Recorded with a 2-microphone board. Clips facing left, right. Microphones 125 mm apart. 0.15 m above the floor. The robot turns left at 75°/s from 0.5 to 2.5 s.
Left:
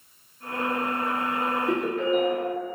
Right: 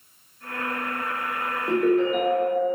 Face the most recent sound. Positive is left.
turn(degrees=-105)